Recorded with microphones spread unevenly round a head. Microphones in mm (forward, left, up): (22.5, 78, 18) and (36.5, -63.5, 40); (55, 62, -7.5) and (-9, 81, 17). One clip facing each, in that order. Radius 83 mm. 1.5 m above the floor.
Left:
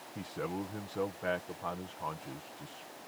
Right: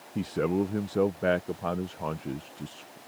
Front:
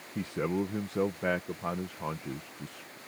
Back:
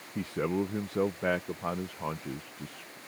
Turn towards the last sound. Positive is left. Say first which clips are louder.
# right 11 dB, back 1 dB
turn(degrees=-120)